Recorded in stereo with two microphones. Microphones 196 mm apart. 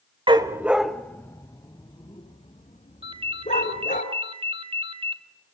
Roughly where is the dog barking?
Right.